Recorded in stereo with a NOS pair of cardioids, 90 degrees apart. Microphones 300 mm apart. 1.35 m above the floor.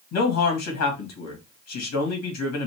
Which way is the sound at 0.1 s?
60° left.